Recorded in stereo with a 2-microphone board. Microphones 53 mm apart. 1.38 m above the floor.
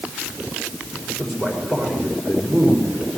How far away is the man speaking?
About 4.5 m.